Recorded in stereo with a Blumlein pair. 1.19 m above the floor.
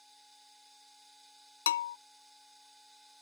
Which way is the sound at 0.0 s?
Straight ahead.